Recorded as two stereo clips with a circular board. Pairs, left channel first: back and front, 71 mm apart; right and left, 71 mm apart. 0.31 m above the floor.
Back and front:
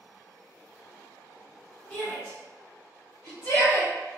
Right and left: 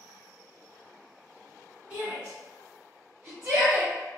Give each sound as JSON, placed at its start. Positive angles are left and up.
{"t": 1.9, "sound": "a shout", "azimuth_deg": 130, "distance_m": 1.2}